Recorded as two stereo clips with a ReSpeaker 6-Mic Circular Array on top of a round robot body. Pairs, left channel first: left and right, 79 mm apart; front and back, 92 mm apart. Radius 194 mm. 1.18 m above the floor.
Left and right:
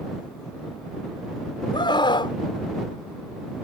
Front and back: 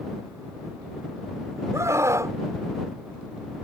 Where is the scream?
120° left.